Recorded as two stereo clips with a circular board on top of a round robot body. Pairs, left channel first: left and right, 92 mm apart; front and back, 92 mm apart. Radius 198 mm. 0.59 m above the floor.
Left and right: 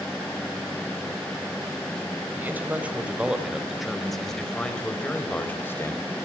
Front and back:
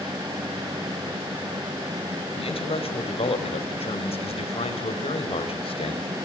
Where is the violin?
I don't hear a violin.